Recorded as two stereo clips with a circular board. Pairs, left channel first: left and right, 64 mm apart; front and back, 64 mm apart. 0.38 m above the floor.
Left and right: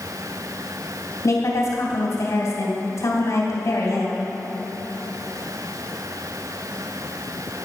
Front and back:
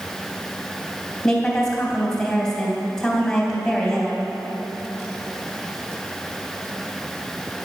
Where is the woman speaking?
80° left, 2.5 m.